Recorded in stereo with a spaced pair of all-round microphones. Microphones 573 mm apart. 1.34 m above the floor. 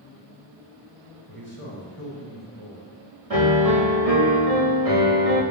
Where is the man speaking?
70° right (ahead or behind), 5 m.